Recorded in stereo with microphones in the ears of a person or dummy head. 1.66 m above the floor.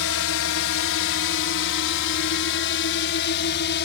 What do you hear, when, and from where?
0.0 s a drone: 65° left (ahead or behind); by 3.9 s 50° left (ahead or behind)